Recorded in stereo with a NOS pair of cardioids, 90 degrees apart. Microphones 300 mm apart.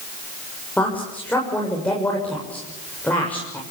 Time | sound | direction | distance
0.8 | a woman speaking | 5° left | 7 m